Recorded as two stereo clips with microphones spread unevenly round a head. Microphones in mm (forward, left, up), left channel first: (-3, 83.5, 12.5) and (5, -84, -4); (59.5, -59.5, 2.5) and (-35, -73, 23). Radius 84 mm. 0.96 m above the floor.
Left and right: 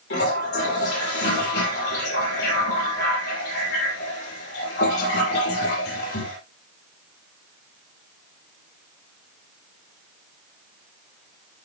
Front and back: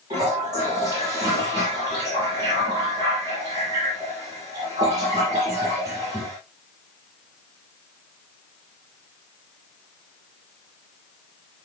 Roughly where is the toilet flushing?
Behind left.